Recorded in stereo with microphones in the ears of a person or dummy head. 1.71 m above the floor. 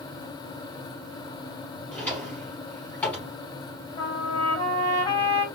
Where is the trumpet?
35° left (ahead or behind), 2.5 m.